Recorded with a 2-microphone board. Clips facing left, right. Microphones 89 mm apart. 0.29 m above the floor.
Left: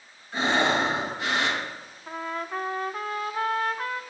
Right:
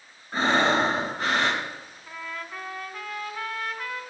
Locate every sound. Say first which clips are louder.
0.3 s breathing: right 2 dB; 40° right (ahead or behind), 4 m
2.1 s a trumpet: left 6 dB; 35° left (ahead or behind), 1.1 m